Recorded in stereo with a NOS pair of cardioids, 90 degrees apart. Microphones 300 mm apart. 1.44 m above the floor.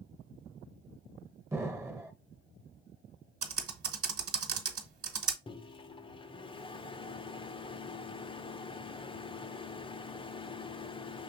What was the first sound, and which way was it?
An explosion, 10° right.